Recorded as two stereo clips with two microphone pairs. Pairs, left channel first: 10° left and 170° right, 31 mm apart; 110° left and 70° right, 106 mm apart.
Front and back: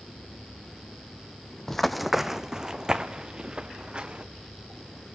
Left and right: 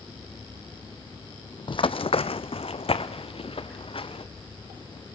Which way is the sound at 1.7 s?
90° left.